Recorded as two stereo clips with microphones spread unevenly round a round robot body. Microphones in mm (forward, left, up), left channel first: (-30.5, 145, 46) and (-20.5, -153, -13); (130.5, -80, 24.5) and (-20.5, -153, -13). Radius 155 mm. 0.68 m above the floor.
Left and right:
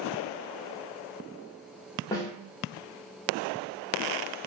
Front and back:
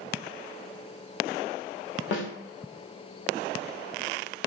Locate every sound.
2.1 s a snare drum: 10° left, 0.6 m